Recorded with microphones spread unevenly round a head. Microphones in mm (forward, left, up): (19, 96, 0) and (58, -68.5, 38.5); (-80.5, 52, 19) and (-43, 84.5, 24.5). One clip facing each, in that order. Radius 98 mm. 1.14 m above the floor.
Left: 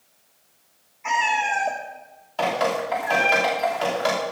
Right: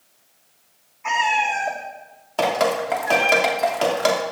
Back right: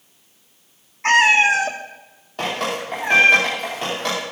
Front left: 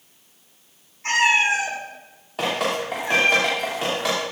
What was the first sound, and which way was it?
A cat meowing, 170° right.